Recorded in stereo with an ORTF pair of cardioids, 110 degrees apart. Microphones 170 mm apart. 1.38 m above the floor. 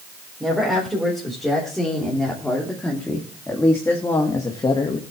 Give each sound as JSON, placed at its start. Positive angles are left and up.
{"t": 0.4, "sound": "a woman speaking", "azimuth_deg": 0, "distance_m": 4.5}